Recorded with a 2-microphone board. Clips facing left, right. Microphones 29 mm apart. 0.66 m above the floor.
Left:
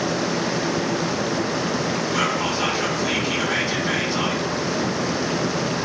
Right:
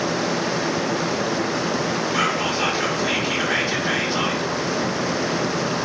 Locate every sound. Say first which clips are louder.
2.1 s whispering: right 1 dB; 20° right (ahead or behind), 0.5 m